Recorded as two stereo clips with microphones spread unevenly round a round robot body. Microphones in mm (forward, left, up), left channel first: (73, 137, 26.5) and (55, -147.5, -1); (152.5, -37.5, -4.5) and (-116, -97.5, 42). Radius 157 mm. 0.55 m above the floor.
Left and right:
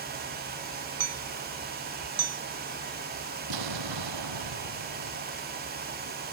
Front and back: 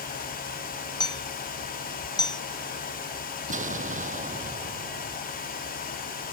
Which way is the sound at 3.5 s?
105° right.